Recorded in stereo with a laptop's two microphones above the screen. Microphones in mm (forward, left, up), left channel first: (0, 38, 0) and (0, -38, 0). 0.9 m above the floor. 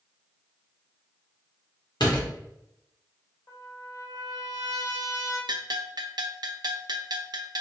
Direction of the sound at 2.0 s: 70° left (ahead or behind).